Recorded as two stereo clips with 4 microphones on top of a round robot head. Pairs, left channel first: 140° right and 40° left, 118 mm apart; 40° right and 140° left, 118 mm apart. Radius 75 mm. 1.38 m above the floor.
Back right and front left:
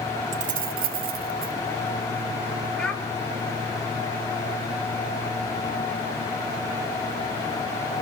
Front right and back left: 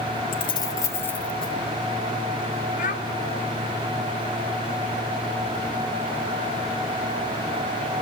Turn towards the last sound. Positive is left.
turn(degrees=-60)